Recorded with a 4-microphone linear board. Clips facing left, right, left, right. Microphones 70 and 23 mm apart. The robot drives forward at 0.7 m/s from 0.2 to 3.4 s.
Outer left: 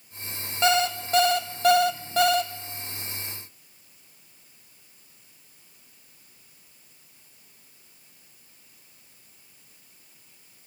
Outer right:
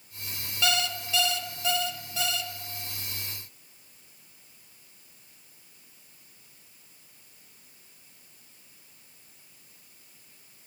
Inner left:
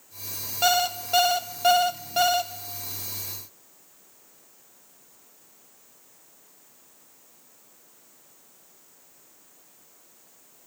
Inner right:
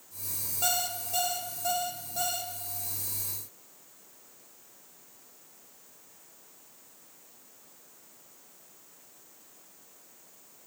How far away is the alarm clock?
About 1.2 m.